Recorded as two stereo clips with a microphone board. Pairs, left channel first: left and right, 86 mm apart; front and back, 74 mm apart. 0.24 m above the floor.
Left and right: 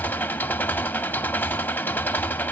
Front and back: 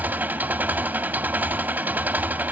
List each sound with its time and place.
0.0 s an engine running: 135° left, 0.7 m